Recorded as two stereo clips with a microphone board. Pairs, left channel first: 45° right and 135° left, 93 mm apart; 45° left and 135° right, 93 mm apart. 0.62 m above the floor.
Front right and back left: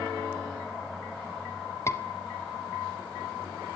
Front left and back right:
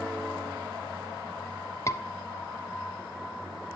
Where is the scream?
Straight ahead, 1.4 m.